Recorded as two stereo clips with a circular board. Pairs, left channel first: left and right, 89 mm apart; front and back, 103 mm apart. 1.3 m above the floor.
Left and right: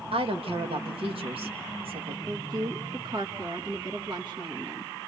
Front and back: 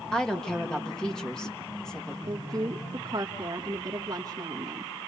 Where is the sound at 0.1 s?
85° right, 2 m.